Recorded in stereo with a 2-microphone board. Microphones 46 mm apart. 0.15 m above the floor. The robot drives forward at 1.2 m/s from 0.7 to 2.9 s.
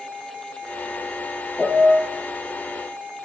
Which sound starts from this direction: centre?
A piano, at 1.6 s.